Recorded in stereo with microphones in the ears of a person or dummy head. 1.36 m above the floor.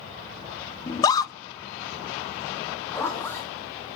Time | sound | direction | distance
0.9 | a scream | 20° left (ahead or behind) | 0.9 m
2.9 | a zipper | 15° left (ahead or behind) | 3 m